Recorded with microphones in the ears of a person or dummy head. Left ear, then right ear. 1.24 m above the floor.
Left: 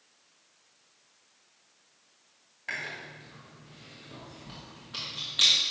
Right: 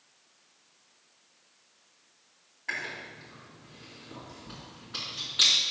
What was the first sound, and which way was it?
Chewing, 15° left (ahead or behind).